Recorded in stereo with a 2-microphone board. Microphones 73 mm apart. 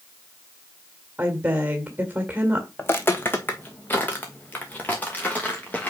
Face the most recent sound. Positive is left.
turn(degrees=20)  # may be behind; listen again after turning